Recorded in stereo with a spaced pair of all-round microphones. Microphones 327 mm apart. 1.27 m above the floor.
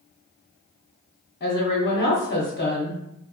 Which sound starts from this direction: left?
A woman speaking, at 1.4 s.